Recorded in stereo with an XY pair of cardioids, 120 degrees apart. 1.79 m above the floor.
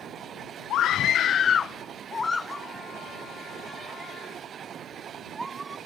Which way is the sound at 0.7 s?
70° left.